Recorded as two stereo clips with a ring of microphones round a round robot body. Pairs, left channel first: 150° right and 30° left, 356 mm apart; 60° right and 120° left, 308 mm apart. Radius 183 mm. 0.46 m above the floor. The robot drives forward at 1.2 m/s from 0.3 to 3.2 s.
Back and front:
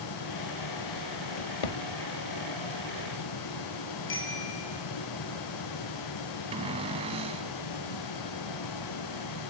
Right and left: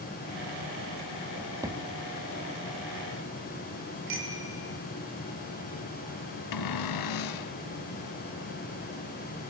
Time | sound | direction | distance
1.4 | a drawer | 150° right | 0.8 m
4.1 | a bicycle bell | 150° left | 6.5 m
6.5 | a cupboard door | 45° right | 1.1 m